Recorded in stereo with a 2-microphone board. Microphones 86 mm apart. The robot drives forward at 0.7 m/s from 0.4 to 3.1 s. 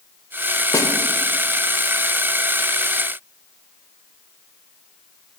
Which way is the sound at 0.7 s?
45° left (ahead or behind).